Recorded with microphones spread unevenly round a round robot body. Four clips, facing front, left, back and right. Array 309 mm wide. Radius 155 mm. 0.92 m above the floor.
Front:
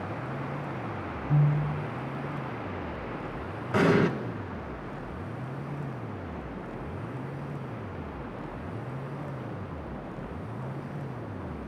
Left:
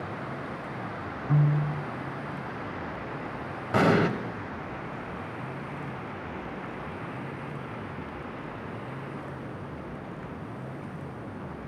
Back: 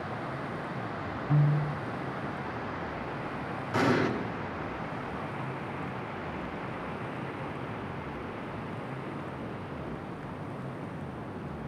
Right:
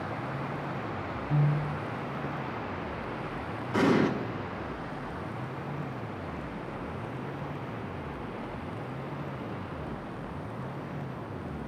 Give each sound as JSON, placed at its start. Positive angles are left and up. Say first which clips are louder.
{"t": 1.3, "sound": "a piano", "louder": "left 4 dB, front 1 dB", "azimuth_deg": 105, "distance_m": 1.4}
{"t": 3.7, "sound": "an explosion", "louder": "left 2 dB, front 4 dB", "azimuth_deg": 70, "distance_m": 1.5}